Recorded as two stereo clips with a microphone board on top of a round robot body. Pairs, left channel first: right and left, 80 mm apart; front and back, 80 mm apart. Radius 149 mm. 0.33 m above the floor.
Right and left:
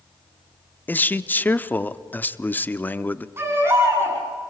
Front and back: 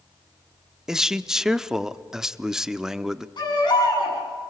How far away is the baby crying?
About 8.5 m.